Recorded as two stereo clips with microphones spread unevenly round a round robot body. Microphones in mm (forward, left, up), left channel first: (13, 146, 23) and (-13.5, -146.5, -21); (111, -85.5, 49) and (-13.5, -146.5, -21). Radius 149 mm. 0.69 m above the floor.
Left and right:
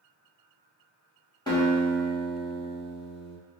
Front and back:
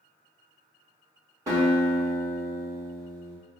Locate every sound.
1.5 s a guitar: 165° left, 1.6 m